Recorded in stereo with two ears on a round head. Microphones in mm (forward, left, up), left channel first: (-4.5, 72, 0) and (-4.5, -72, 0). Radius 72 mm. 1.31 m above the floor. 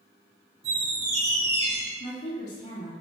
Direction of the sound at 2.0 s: 45° left (ahead or behind).